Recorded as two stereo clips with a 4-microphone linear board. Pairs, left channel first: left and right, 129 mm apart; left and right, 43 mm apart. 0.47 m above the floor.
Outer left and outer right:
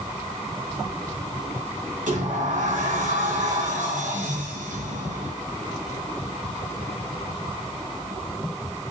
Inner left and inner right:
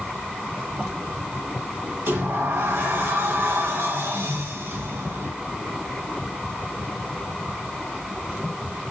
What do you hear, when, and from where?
2.1 s a sliding door: 80° right, 4 m